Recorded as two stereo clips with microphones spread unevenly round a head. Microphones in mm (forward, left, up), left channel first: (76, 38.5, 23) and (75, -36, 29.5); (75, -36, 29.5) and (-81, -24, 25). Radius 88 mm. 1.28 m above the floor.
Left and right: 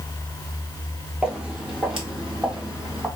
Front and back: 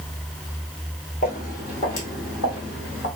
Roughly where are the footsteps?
Ahead.